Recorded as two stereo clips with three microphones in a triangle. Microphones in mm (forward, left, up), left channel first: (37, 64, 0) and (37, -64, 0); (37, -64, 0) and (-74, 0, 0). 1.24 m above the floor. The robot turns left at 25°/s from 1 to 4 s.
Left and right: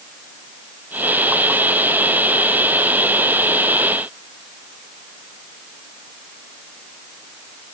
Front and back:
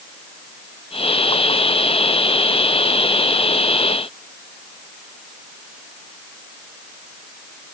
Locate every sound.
Only background noise.